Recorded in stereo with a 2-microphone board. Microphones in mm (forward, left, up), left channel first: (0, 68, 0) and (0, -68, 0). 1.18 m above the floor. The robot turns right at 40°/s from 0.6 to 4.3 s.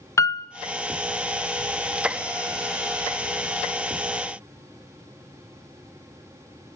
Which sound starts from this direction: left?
A piano, at 0.2 s.